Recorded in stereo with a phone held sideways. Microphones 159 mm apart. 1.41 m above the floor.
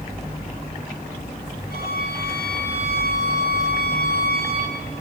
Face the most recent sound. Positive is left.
turn(degrees=65)  # may be behind; listen again after turning